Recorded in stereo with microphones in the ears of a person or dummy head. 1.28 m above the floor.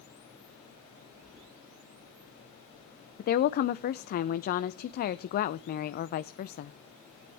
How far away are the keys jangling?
About 7.5 m.